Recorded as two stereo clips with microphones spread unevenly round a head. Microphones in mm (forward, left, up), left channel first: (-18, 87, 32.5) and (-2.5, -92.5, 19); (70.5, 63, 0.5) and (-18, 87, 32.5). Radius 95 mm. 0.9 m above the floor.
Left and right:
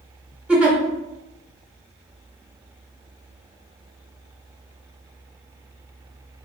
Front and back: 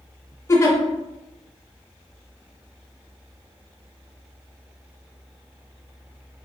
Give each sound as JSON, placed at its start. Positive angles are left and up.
{"t": 0.5, "sound": "a giggle", "azimuth_deg": -5, "distance_m": 0.7}